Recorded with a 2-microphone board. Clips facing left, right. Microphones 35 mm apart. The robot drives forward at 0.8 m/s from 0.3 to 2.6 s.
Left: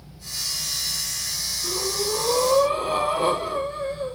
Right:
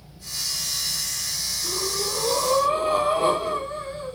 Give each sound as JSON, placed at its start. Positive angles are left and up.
{"t": 1.6, "sound": "breathing", "side_deg": 20, "distance_m": 4.5}